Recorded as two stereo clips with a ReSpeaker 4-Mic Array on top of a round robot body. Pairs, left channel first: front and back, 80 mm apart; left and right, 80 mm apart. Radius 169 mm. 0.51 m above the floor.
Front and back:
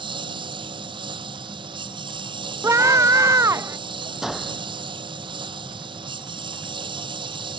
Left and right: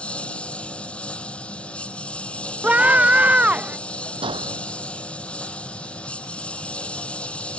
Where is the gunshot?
95° right.